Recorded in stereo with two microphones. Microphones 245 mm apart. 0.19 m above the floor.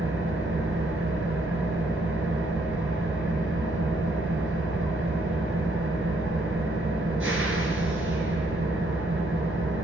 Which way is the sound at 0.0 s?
60° right (ahead or behind).